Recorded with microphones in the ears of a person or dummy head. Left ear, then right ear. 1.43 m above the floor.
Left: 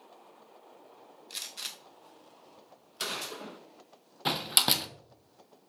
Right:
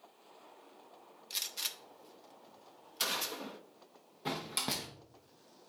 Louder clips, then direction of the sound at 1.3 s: Right 1 dB; 5° right (ahead or behind).